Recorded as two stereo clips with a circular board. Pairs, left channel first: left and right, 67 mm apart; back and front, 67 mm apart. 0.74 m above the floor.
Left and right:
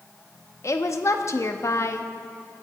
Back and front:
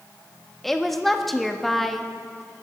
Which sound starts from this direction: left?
A woman speaking, at 0.6 s.